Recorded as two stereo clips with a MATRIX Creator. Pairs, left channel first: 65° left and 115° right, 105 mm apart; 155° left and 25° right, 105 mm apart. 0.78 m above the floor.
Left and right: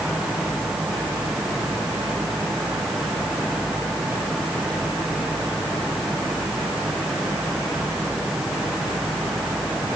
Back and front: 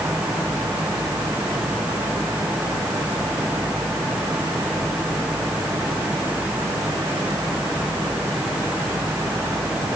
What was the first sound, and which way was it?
Only background noise.